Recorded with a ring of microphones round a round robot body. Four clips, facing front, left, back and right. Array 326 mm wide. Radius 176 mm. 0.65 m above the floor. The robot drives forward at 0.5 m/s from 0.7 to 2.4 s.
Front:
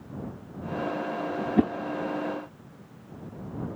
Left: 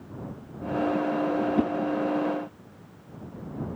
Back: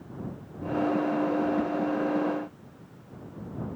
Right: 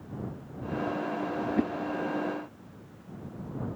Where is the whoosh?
10° left.